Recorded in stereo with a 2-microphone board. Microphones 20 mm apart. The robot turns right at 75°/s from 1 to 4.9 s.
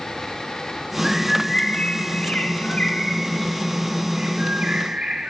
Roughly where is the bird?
Ahead.